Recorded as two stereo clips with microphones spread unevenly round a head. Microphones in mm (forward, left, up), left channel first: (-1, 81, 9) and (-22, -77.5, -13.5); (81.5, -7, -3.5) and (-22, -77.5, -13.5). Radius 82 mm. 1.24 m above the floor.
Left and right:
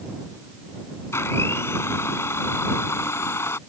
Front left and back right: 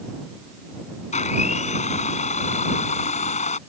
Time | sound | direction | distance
1.1 | a blender | 5° left | ?